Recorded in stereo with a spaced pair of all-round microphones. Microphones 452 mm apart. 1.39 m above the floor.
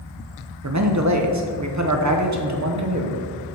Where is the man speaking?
40° right (ahead or behind), 0.8 m.